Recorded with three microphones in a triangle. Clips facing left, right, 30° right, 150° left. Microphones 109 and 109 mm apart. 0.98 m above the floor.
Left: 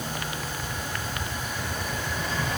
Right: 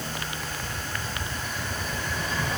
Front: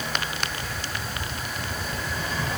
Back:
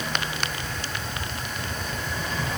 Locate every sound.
Only background noise.